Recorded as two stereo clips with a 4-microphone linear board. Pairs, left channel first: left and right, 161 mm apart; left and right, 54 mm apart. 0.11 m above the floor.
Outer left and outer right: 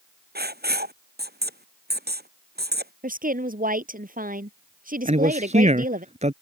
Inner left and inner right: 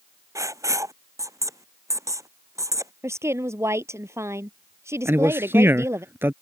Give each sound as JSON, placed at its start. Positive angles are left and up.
{"t": 0.3, "sound": "writing", "side_deg": -80}
{"t": 3.0, "sound": "a woman speaking", "side_deg": -60}
{"t": 5.0, "sound": "a man speaking", "side_deg": -45}